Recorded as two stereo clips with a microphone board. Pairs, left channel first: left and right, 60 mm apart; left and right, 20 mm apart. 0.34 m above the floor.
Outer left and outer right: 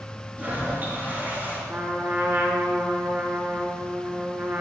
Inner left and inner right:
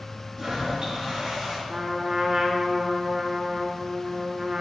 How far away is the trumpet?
About 2 m.